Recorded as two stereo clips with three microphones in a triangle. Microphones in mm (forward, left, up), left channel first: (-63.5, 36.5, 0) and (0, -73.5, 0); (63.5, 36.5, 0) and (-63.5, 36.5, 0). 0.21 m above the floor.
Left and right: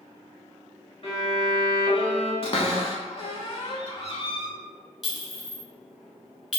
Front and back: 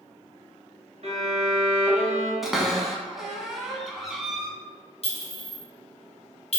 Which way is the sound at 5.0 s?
30° left.